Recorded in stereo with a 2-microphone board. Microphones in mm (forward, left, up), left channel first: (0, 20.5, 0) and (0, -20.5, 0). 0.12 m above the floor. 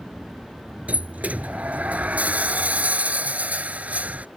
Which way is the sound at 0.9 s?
40° right (ahead or behind).